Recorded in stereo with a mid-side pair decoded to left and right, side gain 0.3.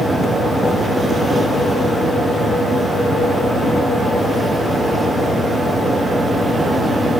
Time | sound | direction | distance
0.0 | a fan | 60° right | 0.7 m